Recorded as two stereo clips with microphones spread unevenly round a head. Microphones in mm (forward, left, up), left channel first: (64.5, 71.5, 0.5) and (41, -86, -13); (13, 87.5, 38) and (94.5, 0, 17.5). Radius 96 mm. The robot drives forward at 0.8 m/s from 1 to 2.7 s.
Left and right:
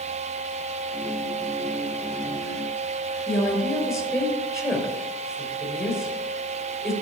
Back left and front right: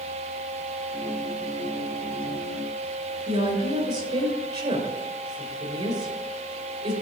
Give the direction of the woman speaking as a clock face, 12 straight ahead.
12 o'clock.